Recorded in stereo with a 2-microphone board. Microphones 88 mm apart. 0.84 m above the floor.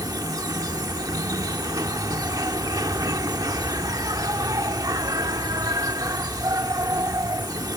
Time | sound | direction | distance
0.0 | an insect | 45° right (ahead or behind) | ?